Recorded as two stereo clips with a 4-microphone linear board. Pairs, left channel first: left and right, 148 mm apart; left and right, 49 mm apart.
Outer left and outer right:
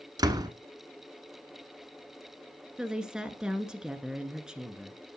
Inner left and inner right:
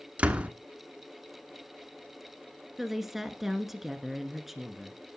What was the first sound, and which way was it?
A door slam, 25° right (ahead or behind).